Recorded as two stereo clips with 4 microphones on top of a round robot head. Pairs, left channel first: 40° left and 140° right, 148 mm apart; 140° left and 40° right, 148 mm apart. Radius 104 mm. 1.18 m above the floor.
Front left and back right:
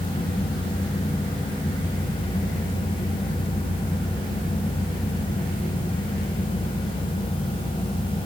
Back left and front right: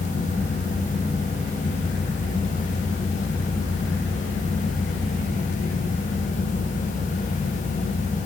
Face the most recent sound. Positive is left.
No sound to turn to.